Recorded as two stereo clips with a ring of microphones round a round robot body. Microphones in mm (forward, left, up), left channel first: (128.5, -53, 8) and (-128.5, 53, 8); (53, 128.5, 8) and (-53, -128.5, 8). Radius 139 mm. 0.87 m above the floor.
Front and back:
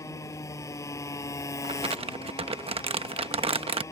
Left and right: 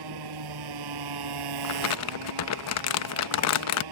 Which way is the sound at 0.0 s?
105° right.